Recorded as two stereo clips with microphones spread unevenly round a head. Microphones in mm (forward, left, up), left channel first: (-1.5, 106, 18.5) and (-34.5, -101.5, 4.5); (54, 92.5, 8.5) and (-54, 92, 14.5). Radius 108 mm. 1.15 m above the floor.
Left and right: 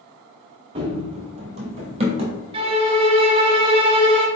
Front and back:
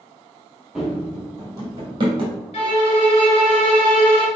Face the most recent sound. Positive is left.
turn(degrees=-35)